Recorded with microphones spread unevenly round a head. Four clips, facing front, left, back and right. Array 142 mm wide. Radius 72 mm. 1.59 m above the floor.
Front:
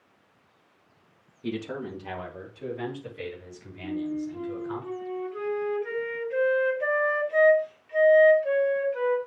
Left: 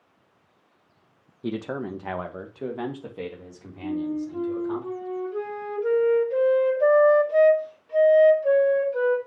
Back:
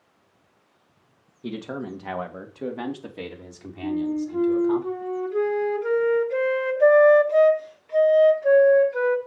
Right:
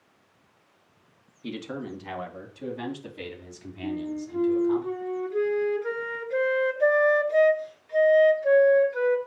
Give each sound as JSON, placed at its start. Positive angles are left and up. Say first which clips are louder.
{"t": 1.4, "sound": "a man speaking", "louder": "left 5 dB, back 1 dB", "azimuth_deg": 105, "distance_m": 2.0}
{"t": 3.8, "sound": "a flute", "louder": "left 4 dB, back 5 dB", "azimuth_deg": 155, "distance_m": 1.5}